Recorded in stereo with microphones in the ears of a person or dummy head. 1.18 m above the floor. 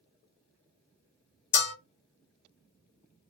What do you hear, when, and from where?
1.5 s a bell: 60° left (ahead or behind), 1.0 m